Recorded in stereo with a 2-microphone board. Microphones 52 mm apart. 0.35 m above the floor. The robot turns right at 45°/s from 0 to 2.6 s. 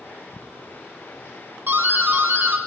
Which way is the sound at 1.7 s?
100° right.